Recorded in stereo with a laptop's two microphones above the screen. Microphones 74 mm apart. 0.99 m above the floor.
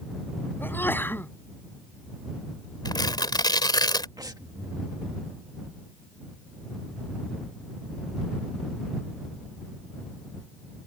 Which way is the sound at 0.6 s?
25° left (ahead or behind).